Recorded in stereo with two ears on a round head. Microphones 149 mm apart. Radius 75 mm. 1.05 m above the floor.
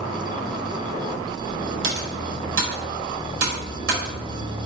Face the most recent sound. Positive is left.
turn(degrees=-85)